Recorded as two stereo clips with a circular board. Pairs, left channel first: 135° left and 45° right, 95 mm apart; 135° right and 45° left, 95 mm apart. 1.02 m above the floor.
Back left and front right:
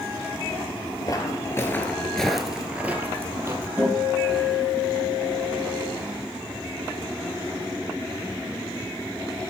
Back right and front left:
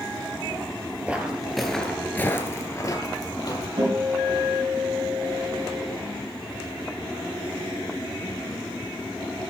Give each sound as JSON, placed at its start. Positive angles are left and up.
{"t": 1.1, "sound": "footsteps", "azimuth_deg": 115, "distance_m": 1.2}
{"t": 3.8, "sound": "a guitar", "azimuth_deg": 20, "distance_m": 4.5}